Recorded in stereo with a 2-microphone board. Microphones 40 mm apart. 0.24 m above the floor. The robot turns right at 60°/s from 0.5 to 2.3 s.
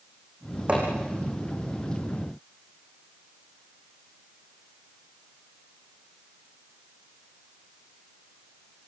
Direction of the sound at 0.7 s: 35° right (ahead or behind).